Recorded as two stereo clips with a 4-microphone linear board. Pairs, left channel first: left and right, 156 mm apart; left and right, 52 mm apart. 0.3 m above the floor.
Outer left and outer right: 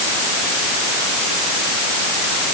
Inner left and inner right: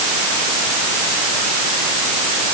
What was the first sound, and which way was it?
Only background noise.